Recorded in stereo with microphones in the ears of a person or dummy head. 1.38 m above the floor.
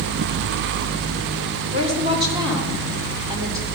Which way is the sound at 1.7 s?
35° right (ahead or behind).